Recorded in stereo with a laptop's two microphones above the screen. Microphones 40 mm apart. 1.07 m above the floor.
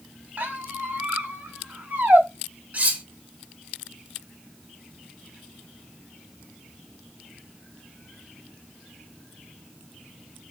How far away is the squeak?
About 1.3 m.